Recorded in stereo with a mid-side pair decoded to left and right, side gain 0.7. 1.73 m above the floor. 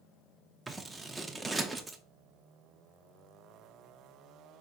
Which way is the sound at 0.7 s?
10° right.